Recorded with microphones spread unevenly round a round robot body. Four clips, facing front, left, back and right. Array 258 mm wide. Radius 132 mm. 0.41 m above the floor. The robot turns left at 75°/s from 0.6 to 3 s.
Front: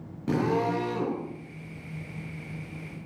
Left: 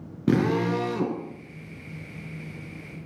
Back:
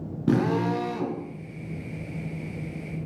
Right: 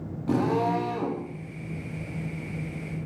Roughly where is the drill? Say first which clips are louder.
Left 1 dB, back 2 dB; behind left.